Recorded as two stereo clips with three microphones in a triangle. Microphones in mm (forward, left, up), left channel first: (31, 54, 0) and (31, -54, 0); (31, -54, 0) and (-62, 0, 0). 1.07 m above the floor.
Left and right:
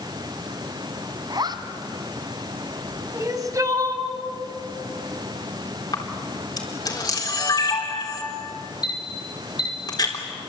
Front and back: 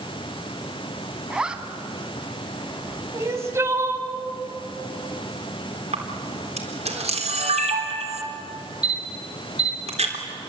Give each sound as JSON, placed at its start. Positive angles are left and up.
{"t": 1.3, "sound": "a zipper", "azimuth_deg": -130, "distance_m": 1.5}
{"t": 3.1, "sound": "crying", "azimuth_deg": -145, "distance_m": 2.0}
{"t": 5.9, "sound": "a camera shutter", "azimuth_deg": 140, "distance_m": 4.0}